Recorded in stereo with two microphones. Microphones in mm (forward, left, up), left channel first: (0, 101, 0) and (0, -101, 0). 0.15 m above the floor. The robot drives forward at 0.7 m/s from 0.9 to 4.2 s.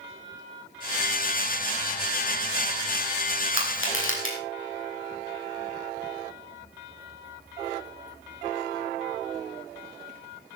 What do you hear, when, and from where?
3.5 s crushing: 80° left, 4.5 m